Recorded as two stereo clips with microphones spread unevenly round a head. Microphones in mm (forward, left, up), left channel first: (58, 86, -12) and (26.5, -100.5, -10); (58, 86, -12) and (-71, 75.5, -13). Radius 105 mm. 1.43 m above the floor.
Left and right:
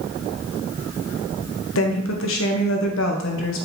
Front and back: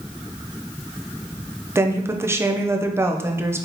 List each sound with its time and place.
1.8 s a woman speaking: 110° left, 0.6 m